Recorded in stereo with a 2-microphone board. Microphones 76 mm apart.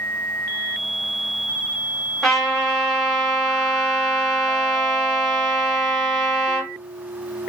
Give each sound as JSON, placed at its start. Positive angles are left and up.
{"t": 2.2, "sound": "a trumpet", "side_deg": 0, "distance_m": 1.5}